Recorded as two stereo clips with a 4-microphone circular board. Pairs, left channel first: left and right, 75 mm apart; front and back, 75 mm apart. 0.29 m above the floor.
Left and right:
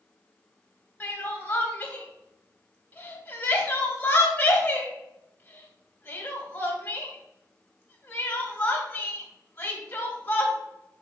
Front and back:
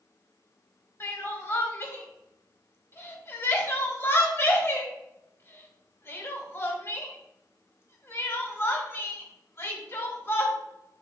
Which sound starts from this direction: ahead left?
Crying, at 1.0 s.